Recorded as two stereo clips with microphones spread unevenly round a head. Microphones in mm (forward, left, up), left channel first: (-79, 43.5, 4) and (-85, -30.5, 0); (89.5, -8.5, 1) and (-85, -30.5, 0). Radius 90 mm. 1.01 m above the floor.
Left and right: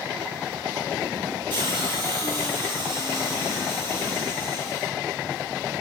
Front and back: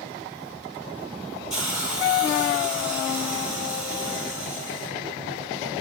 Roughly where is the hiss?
Right.